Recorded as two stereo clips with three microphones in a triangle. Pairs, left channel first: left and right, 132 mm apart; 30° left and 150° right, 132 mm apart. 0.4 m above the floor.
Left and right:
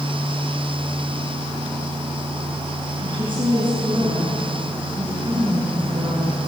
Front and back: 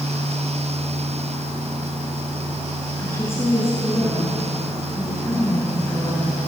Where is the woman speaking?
40° right, 7.5 m.